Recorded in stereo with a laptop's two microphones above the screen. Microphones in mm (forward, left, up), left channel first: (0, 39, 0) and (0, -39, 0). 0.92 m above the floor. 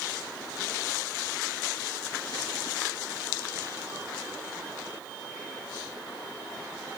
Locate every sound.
Only background noise.